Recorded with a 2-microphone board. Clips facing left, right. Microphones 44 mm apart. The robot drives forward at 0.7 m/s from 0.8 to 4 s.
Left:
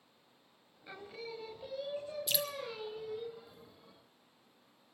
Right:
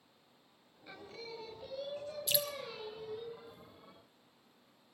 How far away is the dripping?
About 1.0 m.